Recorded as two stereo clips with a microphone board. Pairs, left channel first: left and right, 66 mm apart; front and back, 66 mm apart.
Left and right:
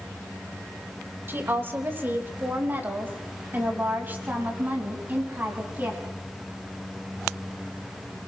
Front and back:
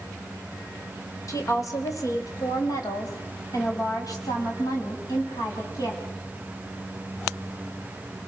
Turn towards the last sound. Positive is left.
turn(degrees=-25)